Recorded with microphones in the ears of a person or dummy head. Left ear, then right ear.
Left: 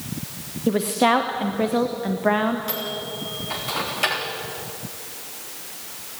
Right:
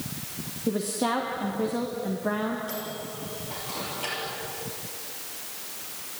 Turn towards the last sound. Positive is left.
turn(degrees=50)  # may be behind; listen again after turning